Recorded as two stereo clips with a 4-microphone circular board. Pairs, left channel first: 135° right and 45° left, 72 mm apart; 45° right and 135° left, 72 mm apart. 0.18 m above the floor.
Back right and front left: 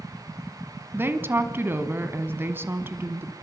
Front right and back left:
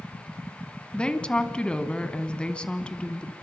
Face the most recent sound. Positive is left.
turn(degrees=20)